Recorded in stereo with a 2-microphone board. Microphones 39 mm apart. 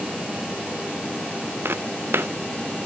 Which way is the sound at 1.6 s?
85° right.